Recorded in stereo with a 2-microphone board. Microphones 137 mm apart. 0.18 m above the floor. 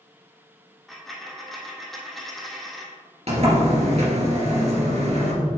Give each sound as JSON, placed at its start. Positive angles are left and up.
{"t": 0.9, "sound": "a dropped coin", "side_deg": 0, "distance_m": 1.4}
{"t": 3.3, "sound": "a sliding door", "side_deg": -50, "distance_m": 2.0}